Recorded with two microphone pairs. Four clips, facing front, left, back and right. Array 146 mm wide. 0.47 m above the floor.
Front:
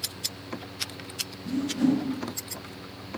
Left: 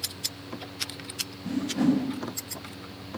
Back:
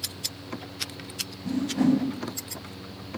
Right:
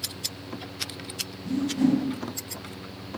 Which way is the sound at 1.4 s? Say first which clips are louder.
Right 2 dB, back 1 dB; 140° left.